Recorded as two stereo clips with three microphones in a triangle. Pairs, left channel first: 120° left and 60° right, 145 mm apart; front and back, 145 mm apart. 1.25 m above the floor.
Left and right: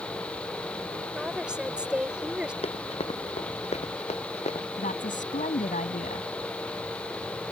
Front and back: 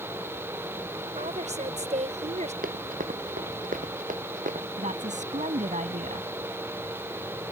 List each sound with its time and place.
1.1 s a woman speaking: 145° right
2.6 s running footsteps: 165° left; by 4.7 s 160° left
4.8 s a woman speaking: 145° left